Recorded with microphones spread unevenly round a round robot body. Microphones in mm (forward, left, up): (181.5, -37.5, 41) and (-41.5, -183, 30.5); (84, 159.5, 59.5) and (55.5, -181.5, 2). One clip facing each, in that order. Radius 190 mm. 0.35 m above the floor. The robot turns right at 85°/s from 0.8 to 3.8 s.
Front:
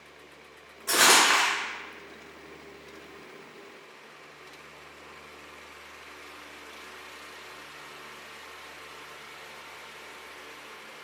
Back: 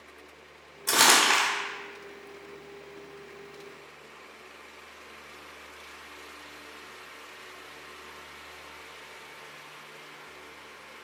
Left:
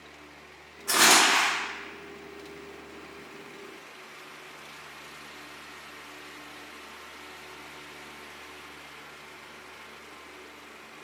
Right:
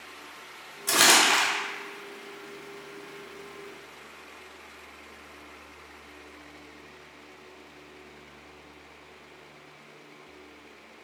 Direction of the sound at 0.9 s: 145° right.